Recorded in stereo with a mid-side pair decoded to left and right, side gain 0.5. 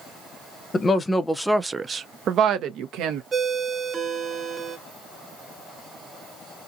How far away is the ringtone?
About 0.9 m.